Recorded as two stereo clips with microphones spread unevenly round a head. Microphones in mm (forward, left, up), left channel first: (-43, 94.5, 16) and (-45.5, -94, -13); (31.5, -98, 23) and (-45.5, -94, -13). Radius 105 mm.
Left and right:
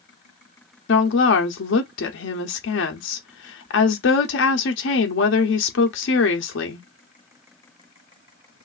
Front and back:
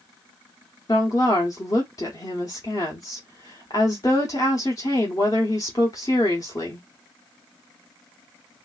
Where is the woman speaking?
55° left, 0.7 m.